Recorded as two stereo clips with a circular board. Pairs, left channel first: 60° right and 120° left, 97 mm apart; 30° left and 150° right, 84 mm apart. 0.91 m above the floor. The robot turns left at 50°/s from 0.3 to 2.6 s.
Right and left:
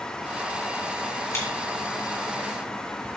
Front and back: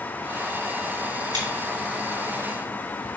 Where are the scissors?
120° right, 3 m; by 1.5 s 125° right, 3 m.